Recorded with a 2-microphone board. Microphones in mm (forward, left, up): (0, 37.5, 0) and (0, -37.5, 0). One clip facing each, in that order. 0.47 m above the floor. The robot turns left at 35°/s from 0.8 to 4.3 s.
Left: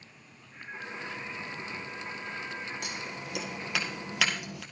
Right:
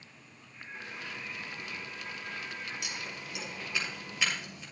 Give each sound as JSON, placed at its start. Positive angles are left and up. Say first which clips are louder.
{"t": 0.5, "sound": "singing", "louder": "left 4 dB", "azimuth_deg": 70, "distance_m": 5.0}
{"t": 2.8, "sound": "scissors", "louder": "left 3 dB", "side_deg": 45, "distance_m": 2.5}